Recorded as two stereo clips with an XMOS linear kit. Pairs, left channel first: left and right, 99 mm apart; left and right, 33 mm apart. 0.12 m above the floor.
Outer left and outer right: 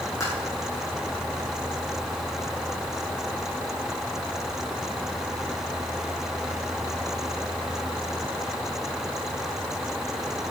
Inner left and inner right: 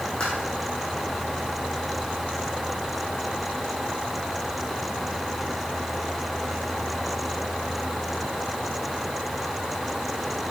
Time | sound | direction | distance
0.2 | tapping | 30° left (ahead or behind) | 4.5 m